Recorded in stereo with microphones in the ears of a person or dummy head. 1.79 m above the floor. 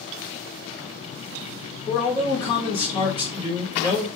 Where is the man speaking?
25° left (ahead or behind), 0.8 m.